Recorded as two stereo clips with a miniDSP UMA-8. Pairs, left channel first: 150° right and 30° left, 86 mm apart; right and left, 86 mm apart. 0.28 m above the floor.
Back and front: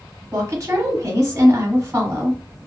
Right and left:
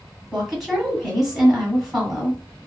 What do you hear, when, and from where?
0.3 s a woman speaking: 5° left, 1.1 m